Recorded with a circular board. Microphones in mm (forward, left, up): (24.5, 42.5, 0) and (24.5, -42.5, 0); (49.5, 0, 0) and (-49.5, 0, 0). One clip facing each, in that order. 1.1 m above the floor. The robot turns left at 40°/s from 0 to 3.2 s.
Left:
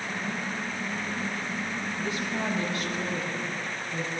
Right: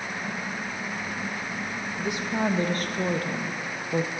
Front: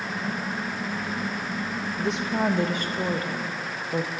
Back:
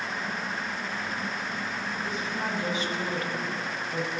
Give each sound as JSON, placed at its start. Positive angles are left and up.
{"t": 2.0, "sound": "a woman speaking", "azimuth_deg": -10, "distance_m": 0.7}